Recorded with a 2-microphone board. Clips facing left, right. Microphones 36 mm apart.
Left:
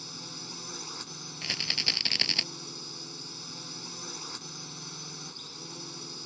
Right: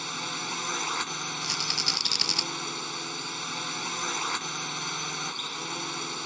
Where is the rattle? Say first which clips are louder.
Left 2 dB; 25° left (ahead or behind).